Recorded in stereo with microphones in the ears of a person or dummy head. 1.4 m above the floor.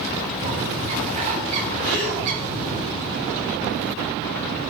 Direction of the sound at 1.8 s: 60° left (ahead or behind).